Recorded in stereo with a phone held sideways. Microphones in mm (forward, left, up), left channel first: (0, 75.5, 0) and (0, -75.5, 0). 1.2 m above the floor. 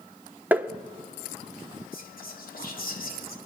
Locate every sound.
0.5 s tapping: 10° right (ahead or behind), 0.7 m
1.9 s whispering: 70° left (ahead or behind), 2.5 m